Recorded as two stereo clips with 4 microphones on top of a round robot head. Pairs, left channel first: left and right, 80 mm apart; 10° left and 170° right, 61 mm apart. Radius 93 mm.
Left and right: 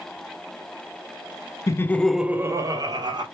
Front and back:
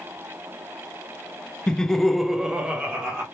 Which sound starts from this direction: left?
Laughter, at 1.7 s.